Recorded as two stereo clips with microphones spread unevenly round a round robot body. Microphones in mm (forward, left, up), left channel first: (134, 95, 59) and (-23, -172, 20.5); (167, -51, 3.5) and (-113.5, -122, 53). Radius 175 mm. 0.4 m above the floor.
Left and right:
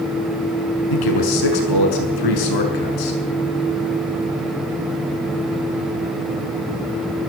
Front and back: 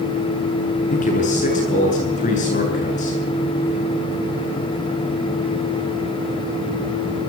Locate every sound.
0.9 s a man speaking: 80° left, 7 m